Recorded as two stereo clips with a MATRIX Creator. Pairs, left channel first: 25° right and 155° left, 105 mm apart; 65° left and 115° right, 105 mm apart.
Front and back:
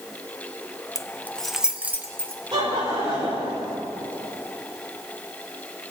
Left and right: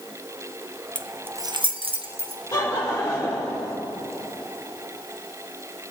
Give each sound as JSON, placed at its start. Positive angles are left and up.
{"t": 0.9, "sound": "keys jangling", "azimuth_deg": 5, "distance_m": 0.6}
{"t": 2.5, "sound": "laughter", "azimuth_deg": 125, "distance_m": 4.5}